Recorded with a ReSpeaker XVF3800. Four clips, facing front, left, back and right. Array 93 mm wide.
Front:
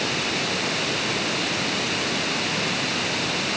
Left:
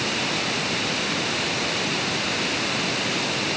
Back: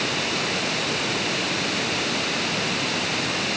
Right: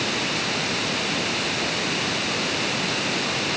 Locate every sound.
Only background noise.